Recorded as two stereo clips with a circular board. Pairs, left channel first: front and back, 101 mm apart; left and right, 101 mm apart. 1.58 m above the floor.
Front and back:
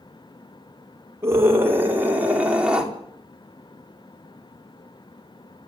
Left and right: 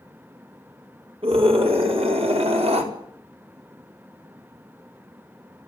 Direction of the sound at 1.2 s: 115° right.